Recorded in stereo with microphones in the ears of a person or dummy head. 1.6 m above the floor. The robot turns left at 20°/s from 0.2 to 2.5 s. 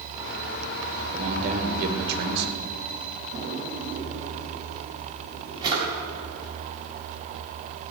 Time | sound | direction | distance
1.1 | a man speaking | 35° right (ahead or behind) | 2 m
3.3 | a drawer | 25° right (ahead or behind) | 4.5 m